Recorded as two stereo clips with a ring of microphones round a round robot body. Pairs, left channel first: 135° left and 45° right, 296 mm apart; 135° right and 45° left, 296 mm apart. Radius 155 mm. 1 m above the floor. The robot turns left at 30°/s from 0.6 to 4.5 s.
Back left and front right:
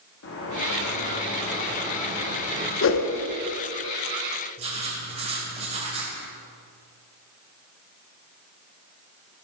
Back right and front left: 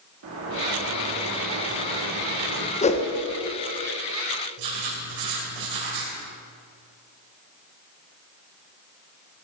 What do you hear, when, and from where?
0.2 s a sliding door: 90° left, 2.5 m; by 2.7 s 25° left, 2.5 m
2.8 s a whoosh: 165° left, 1.0 m; by 3.1 s 155° left, 1.0 m
4.6 s writing: 25° left, 2.5 m